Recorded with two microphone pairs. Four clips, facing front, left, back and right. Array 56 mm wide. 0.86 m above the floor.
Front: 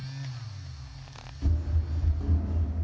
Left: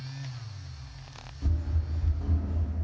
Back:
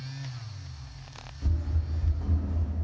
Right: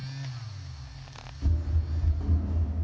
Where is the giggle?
I don't hear a giggle.